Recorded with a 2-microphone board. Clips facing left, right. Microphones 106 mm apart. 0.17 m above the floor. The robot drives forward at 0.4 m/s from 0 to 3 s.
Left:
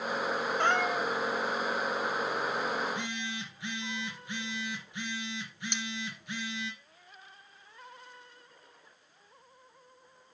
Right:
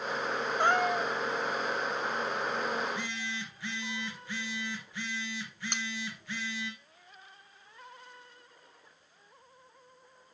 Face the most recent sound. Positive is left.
turn(degrees=-50)  # may be behind; listen again after turning